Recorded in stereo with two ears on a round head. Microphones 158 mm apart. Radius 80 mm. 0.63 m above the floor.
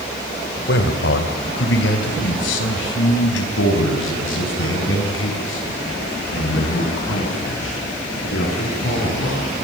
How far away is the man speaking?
About 3 m.